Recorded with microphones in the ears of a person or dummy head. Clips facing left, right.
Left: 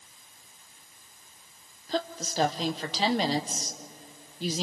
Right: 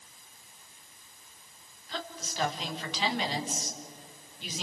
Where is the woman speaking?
30° left (ahead or behind), 1.2 m.